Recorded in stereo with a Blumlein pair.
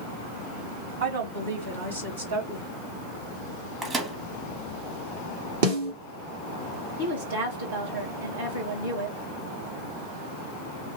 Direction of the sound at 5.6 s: 55° right.